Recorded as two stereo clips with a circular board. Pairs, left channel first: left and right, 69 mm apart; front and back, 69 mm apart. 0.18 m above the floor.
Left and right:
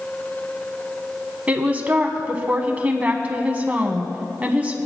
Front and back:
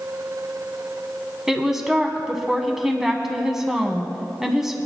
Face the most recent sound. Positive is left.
turn(degrees=-105)